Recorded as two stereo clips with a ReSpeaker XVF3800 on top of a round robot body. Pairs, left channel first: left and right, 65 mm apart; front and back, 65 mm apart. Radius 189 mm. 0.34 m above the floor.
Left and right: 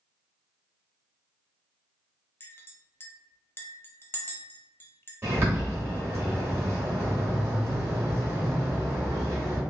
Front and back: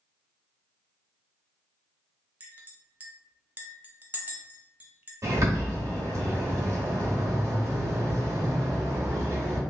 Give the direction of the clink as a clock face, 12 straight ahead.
8 o'clock.